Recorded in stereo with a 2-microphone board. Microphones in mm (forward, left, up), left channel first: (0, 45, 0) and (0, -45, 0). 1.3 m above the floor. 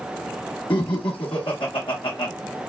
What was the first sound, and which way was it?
Laughter, 75° left (ahead or behind).